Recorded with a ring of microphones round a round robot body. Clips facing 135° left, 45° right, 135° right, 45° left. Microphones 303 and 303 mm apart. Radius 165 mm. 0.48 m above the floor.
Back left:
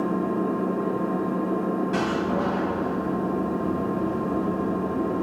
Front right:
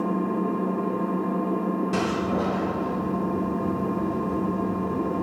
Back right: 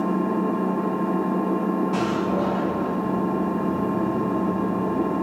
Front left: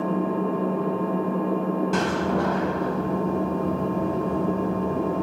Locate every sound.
0.0 s an engine running: 110° right, 1.1 m
1.9 s a door slam: 15° right, 1.4 m